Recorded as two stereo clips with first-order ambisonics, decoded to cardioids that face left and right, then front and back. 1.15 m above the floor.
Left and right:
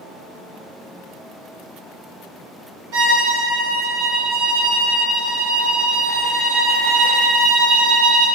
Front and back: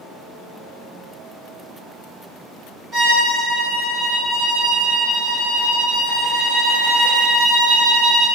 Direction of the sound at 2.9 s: 115° right.